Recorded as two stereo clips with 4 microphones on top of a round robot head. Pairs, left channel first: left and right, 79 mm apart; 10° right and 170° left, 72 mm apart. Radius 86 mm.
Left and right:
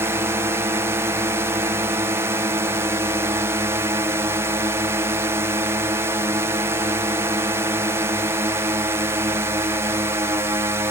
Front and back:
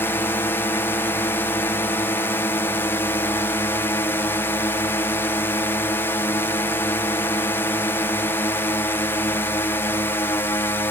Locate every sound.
0.0 s a drone: 55° right